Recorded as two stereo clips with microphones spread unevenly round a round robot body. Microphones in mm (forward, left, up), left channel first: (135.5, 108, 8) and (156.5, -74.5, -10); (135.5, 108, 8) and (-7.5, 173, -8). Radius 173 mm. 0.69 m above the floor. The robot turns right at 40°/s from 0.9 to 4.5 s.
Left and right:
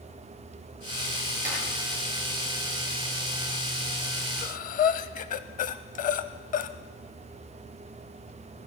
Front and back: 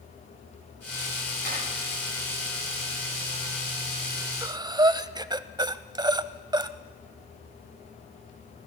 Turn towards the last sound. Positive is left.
turn(degrees=90)